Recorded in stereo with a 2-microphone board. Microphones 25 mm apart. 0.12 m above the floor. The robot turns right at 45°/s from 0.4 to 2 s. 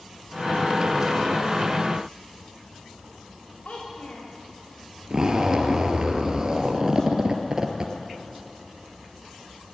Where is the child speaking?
55° left (ahead or behind), 7 m.